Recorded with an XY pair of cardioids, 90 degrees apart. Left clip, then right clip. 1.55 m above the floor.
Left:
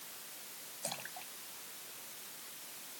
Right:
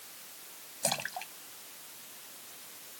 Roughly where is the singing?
I don't hear singing.